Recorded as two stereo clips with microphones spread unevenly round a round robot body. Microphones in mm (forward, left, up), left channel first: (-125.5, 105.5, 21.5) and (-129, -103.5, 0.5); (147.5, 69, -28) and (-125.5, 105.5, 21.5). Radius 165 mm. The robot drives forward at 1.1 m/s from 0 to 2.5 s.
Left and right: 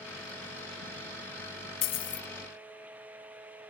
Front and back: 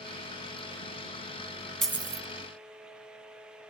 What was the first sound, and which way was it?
A dropped coin, 85° left.